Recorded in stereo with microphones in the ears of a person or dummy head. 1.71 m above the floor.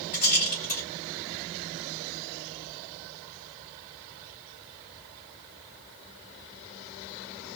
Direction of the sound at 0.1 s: 40° left (ahead or behind).